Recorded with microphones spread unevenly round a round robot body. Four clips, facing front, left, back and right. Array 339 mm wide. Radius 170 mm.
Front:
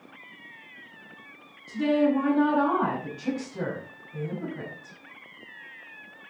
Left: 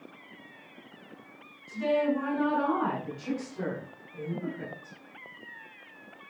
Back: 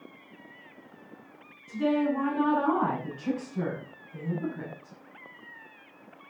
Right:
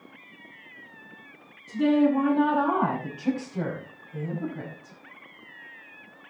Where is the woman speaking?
70° right, 7 m; by 5.0 s 55° right, 6 m.